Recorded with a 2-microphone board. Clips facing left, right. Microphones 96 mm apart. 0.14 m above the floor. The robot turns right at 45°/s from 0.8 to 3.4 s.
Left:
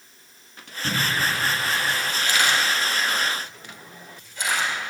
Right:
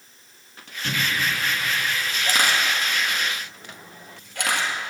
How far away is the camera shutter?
About 2 m.